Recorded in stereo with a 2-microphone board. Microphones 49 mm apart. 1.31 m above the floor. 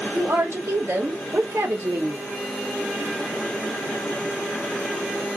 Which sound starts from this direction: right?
A woman speaking, at 0.1 s.